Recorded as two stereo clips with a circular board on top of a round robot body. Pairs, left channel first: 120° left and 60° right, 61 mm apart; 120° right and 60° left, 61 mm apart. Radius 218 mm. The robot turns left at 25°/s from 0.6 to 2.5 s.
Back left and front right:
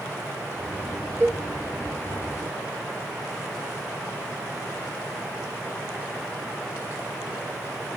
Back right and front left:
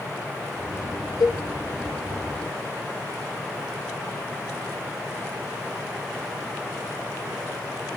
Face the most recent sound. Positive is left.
turn(degrees=-145)